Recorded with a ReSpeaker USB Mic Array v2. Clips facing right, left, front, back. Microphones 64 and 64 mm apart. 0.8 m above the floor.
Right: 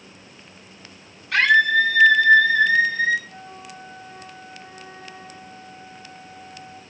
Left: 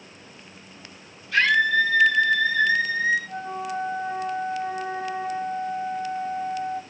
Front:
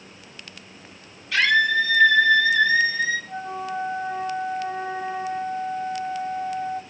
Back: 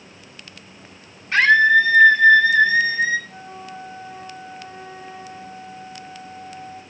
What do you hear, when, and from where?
1.3 s a scream: 120° right, 8 m
3.3 s a flute: 45° left, 0.7 m